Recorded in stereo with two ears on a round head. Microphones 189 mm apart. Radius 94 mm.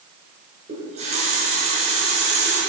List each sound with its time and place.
0.7 s a running tap: 35° right (ahead or behind), 5 m